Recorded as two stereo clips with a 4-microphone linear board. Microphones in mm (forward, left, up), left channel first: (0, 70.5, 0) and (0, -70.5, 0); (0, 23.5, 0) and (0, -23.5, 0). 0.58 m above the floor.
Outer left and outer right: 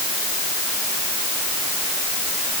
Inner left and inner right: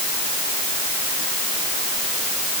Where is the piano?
No piano in this recording.